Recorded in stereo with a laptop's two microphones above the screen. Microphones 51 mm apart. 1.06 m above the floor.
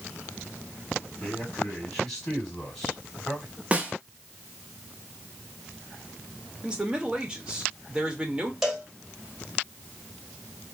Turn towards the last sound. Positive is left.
turn(degrees=-5)  # may be behind; listen again after turning